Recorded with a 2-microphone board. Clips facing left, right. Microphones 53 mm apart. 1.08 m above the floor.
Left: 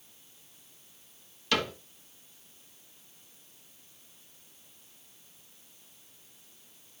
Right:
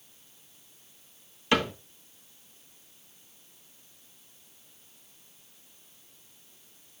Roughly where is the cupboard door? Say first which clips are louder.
Right 4 dB; right.